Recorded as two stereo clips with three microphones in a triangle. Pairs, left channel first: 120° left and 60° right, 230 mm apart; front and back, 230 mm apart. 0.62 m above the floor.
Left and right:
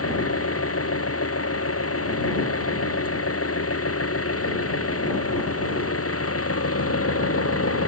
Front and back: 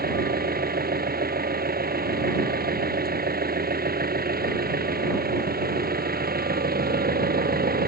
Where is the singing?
No singing in this recording.